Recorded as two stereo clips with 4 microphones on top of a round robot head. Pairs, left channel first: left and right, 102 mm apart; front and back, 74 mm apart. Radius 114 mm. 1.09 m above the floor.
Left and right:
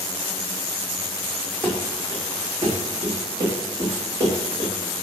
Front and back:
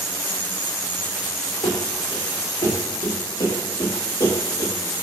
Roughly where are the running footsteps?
Ahead.